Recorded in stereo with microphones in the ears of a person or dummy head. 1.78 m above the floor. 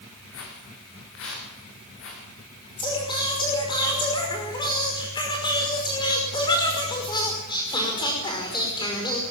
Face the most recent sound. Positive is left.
turn(degrees=25)  # may be behind; listen again after turning